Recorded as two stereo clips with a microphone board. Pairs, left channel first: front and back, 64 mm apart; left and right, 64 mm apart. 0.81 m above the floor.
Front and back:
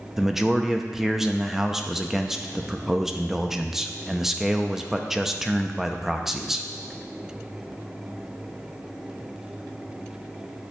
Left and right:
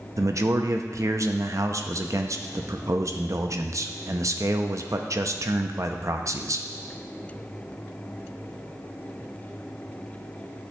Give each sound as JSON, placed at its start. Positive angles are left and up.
{"t": 0.2, "sound": "a man speaking", "azimuth_deg": -100, "distance_m": 0.5}